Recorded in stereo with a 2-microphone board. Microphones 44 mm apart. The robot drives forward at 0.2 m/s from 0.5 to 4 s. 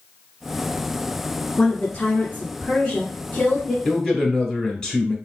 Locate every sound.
1.6 s a woman speaking: 20° left (ahead or behind), 1.7 m
3.9 s a man speaking: 10° left (ahead or behind), 1.0 m